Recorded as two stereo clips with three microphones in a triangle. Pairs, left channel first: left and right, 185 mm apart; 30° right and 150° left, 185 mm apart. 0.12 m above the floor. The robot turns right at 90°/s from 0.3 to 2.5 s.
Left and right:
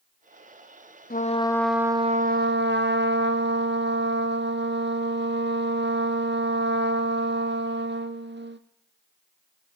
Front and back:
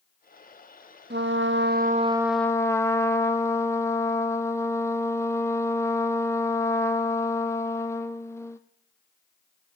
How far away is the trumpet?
About 0.9 m.